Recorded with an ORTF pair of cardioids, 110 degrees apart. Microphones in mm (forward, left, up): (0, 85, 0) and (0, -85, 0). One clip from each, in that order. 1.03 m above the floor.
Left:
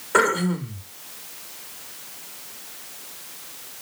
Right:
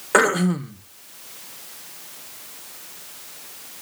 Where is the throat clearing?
45° right, 1.0 m.